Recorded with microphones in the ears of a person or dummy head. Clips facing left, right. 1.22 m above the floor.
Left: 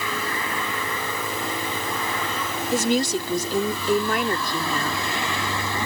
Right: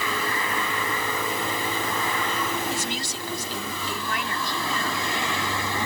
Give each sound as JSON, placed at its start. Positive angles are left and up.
{"t": 2.7, "sound": "a woman speaking", "side_deg": 45}